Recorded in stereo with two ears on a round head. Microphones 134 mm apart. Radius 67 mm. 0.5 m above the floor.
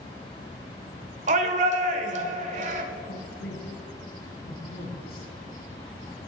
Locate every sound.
1.3 s a shout: 50° right (ahead or behind), 1.6 m
3.1 s a man speaking: 75° left (ahead or behind), 4.5 m